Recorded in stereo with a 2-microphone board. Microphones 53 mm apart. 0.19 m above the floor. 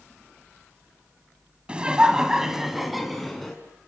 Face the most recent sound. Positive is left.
turn(degrees=5)  # may be behind; listen again after turning